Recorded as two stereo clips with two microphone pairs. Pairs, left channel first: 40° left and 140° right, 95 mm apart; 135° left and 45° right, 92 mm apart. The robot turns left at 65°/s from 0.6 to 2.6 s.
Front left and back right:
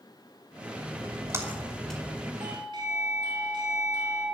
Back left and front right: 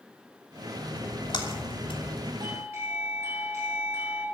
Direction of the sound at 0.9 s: 175° right.